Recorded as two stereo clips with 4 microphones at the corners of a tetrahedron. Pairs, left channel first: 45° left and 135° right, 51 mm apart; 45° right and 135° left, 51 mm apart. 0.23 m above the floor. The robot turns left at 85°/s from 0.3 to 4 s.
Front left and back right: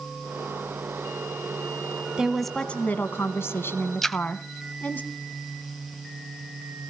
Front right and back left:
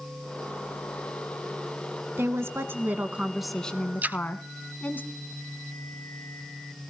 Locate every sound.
2.2 s a woman speaking: 155° left, 1.6 m; by 5.0 s straight ahead, 1.6 m
4.0 s a splash: 130° left, 0.8 m